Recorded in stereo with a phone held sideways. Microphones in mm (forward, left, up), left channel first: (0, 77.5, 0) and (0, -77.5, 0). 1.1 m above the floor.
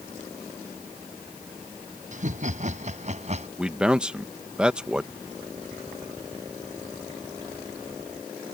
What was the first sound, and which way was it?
Laughter, 50° right (ahead or behind).